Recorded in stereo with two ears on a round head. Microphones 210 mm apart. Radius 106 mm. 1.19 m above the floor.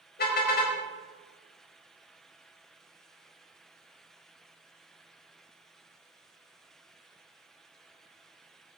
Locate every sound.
0.2 s a car horn: 45° left (ahead or behind), 3.5 m